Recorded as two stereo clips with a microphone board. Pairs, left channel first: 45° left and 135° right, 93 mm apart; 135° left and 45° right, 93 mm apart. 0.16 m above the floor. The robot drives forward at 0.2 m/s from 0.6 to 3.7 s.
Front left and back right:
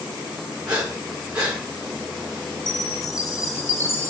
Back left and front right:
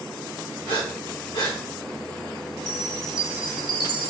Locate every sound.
0.7 s breathing: 145° left, 1.9 m; by 1.6 s 150° left, 2 m
2.7 s a chime: 85° left, 0.7 m; by 4.1 s 105° left, 0.7 m